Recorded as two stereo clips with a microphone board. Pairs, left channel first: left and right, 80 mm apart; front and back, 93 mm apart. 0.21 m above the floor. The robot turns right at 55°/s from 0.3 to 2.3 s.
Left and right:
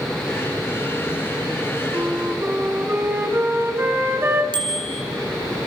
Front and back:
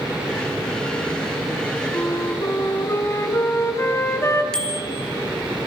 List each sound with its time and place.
1.9 s a flute: 65° right, 2 m; by 4.4 s 45° right, 2 m
4.5 s a bicycle bell: 80° right, 2.5 m